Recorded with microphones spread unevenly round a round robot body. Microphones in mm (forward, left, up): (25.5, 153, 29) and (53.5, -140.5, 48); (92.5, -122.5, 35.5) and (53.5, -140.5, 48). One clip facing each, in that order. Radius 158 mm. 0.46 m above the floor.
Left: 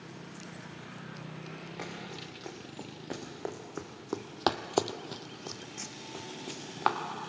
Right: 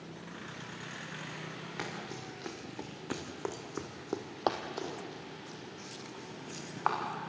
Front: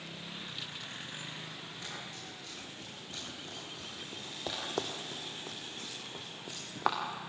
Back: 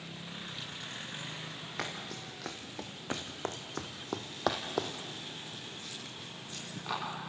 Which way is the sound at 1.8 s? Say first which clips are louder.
Right 2 dB, back 8 dB; 150° right.